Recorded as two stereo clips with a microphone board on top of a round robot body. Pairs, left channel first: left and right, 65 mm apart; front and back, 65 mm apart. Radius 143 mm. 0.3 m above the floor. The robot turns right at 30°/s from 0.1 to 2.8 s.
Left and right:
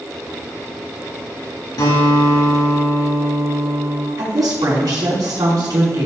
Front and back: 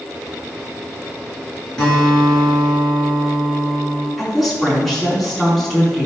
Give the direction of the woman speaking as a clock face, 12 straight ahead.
3 o'clock.